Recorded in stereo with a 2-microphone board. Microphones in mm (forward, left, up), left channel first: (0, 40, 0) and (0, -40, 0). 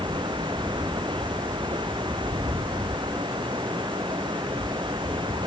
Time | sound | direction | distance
0.0 | running water | 85° right | ?